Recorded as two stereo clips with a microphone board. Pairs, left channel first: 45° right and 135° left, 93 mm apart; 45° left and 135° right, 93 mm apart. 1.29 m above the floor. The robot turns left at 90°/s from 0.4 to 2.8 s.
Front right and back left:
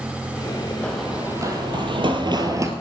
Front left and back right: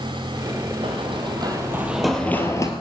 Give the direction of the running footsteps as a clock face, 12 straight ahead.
4 o'clock.